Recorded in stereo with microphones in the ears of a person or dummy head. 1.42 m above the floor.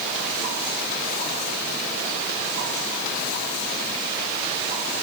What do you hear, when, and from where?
Only background noise.